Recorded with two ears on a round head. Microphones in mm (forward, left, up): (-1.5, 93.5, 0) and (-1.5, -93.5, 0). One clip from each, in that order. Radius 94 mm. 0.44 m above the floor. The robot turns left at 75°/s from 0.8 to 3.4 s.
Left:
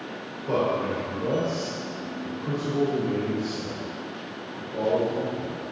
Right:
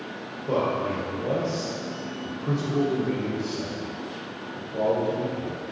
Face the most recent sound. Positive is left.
turn(degrees=5)  # may be behind; listen again after turning